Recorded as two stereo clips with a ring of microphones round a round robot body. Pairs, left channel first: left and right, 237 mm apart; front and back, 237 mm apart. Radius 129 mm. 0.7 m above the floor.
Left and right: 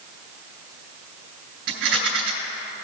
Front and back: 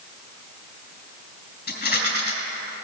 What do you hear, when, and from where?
1.7 s a rattle: 55° right, 2.5 m